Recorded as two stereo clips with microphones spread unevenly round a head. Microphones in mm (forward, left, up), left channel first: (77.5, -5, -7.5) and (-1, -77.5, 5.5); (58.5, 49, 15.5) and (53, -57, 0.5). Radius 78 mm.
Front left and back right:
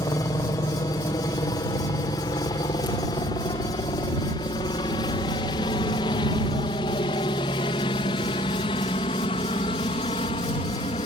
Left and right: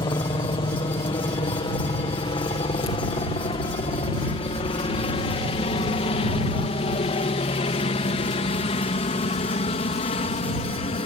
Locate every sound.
0.0 s a helicopter: 85° left